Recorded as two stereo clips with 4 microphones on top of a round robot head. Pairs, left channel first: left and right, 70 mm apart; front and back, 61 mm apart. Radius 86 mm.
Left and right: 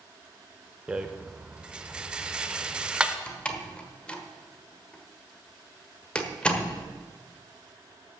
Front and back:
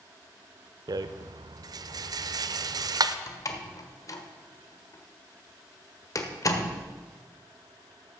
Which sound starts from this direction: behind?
A rattle, at 0.9 s.